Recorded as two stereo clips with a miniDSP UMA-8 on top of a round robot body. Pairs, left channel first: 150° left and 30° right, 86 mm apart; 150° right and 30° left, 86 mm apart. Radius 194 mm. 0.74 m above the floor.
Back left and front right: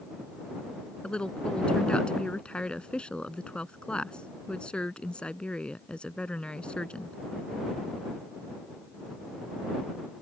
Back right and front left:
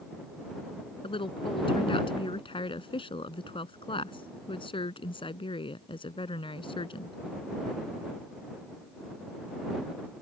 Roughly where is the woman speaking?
Behind right.